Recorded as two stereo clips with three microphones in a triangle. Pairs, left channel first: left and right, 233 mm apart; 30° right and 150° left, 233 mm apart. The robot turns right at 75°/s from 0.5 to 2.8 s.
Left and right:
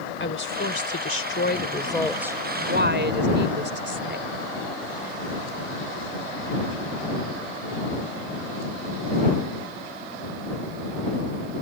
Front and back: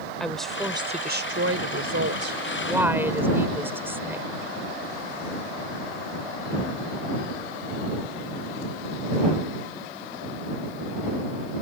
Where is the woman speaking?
60° left; by 4.3 s 130° right.